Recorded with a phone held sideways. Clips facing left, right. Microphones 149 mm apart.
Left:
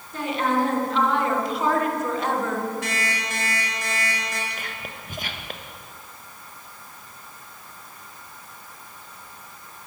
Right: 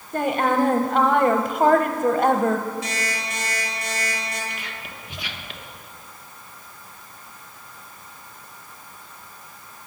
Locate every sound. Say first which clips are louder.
0.1 s a woman speaking: right 3 dB; 50° right (ahead or behind), 1.1 m
2.8 s an alarm clock: even; 60° left (ahead or behind), 5.5 m
4.5 s whispering: left 1 dB; 45° left (ahead or behind), 1.2 m